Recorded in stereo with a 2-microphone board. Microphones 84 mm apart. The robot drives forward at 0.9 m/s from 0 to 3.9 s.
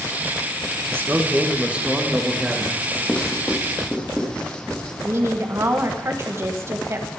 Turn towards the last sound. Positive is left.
turn(degrees=-35)  # may be behind; listen again after turning